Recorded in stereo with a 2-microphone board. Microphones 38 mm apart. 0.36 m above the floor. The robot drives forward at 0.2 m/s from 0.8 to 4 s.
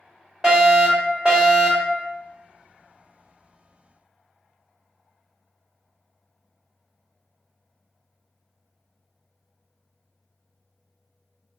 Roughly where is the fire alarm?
Right.